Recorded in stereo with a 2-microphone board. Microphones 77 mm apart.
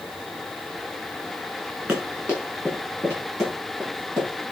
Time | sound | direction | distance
1.9 | running footsteps | 30° right (ahead or behind) | 5 m